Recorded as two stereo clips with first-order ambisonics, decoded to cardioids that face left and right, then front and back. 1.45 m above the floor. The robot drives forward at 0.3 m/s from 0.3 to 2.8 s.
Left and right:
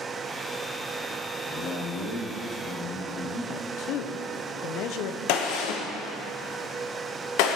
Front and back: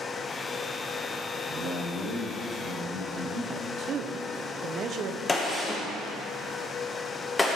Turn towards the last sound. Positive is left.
turn(degrees=75)